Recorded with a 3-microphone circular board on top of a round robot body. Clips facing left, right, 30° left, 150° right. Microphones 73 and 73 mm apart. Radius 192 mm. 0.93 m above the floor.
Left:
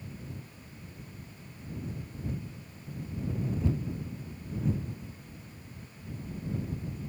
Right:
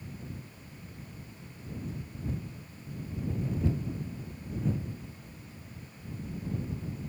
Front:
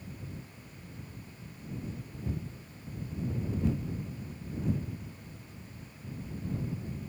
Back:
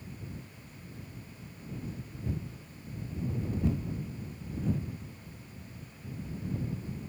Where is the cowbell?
No cowbell in this recording.